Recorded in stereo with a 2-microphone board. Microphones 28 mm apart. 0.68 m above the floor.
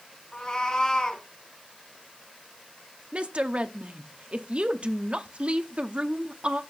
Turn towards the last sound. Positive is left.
turn(degrees=-45)  # may be behind; listen again after turning